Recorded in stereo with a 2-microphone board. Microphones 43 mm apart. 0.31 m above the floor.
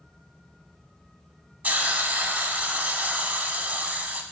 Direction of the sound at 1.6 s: 35° right (ahead or behind).